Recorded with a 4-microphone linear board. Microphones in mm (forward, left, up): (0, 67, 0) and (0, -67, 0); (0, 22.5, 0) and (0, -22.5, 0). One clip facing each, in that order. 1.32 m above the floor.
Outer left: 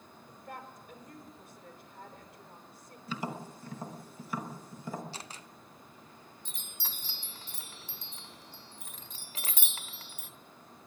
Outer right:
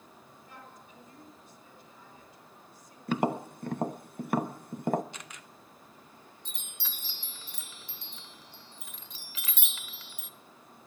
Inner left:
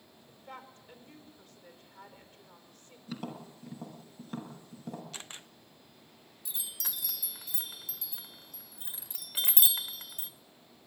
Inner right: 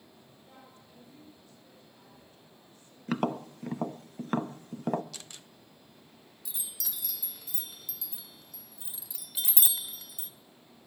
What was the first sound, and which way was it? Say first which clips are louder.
A woman speaking: outer left 7 dB, inner left 9 dB; 60° left (ahead or behind).